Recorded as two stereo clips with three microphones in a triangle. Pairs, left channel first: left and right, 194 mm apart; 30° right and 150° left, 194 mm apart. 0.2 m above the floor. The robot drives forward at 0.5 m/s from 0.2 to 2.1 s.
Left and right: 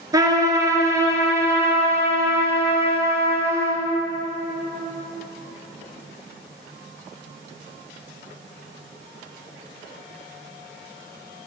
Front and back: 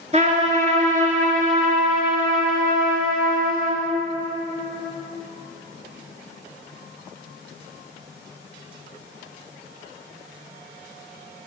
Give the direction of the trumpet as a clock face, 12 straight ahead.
5 o'clock.